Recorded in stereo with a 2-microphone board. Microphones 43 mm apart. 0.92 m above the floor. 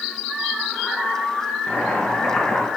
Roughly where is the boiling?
Left.